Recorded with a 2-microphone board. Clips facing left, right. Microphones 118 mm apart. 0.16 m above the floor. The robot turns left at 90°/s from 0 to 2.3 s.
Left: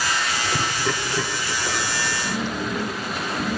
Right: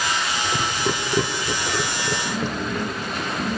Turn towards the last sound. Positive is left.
turn(degrees=-20)  # may be behind; listen again after turning